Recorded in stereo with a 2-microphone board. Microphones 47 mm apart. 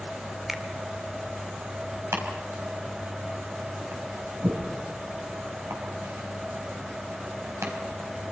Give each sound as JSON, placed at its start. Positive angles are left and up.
{"t": 0.5, "sound": "a finger snap", "side_deg": -5, "distance_m": 2.0}
{"t": 2.1, "sound": "chopping", "side_deg": -75, "distance_m": 4.5}